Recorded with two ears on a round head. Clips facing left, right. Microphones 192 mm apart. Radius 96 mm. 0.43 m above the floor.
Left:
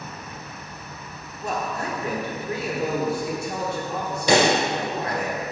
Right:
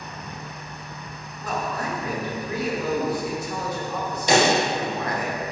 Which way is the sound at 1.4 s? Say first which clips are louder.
Even; 25° left (ahead or behind).